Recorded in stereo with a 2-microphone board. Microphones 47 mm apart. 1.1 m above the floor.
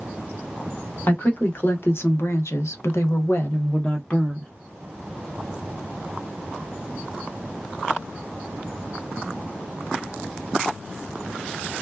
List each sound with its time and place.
1.1 s a woman speaking: 45° left (ahead or behind), 1.3 m; by 4.5 s 20° left (ahead or behind), 0.9 m